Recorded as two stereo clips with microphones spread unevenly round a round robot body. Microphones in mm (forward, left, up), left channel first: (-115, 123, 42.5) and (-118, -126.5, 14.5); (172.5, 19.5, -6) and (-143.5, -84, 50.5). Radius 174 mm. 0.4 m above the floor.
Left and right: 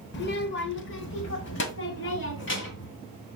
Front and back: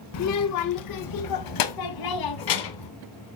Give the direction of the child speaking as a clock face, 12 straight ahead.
11 o'clock.